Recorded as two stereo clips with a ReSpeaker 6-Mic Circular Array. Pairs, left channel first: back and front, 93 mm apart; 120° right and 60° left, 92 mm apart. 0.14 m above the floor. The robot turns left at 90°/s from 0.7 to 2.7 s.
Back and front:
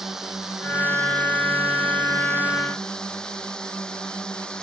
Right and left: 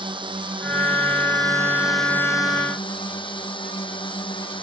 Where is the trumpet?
I don't hear a trumpet.